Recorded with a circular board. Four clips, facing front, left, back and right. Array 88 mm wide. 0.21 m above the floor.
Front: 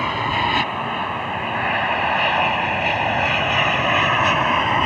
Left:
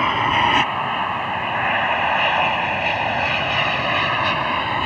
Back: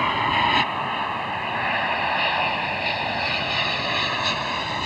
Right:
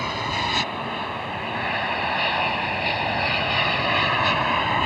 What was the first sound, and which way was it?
An aircraft, 100° left.